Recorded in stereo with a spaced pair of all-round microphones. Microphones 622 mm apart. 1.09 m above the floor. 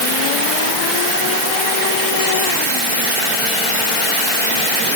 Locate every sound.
Only background noise.